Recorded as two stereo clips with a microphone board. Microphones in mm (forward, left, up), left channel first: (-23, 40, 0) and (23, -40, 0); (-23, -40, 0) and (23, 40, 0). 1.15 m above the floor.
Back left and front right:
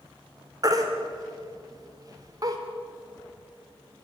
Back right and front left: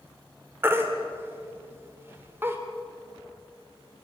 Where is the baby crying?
10° right, 2.5 m.